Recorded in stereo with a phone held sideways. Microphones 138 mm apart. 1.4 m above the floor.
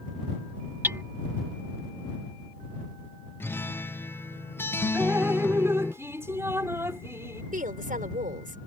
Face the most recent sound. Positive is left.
turn(degrees=-85)